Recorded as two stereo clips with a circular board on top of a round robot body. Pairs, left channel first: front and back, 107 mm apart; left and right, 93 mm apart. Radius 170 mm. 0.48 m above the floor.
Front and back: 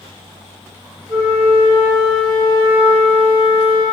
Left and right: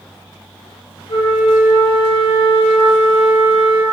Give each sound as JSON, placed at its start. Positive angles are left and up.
{"t": 1.1, "sound": "a flute", "azimuth_deg": 105, "distance_m": 0.8}